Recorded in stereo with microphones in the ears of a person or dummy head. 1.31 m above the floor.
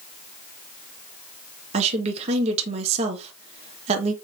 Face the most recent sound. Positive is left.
turn(degrees=-40)  # may be behind; listen again after turning